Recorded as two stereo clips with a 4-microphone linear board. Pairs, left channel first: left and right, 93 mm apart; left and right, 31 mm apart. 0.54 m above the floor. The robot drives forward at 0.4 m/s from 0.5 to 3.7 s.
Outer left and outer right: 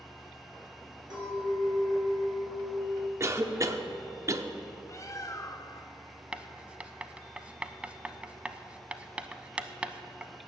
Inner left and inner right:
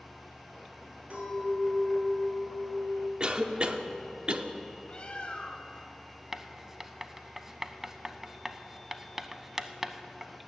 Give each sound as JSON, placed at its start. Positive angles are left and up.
{"t": 1.1, "sound": "a clink", "side_deg": -50, "distance_m": 5.0}
{"t": 3.2, "sound": "a cough", "side_deg": -30, "distance_m": 0.8}
{"t": 4.9, "sound": "a bird", "side_deg": 35, "distance_m": 0.6}
{"t": 6.3, "sound": "writing", "side_deg": -15, "distance_m": 0.5}